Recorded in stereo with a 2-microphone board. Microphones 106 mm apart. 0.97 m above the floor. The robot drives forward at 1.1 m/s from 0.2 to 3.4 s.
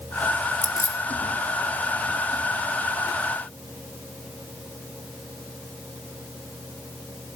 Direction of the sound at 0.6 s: 25° left (ahead or behind).